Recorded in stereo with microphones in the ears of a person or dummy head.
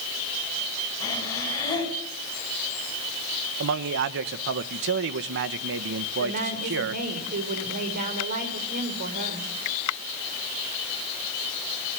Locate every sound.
1.0 s breathing: 25° left (ahead or behind), 9.5 m
3.6 s a man speaking: 60° right (ahead or behind), 1.2 m
6.2 s a woman speaking: 45° right (ahead or behind), 5 m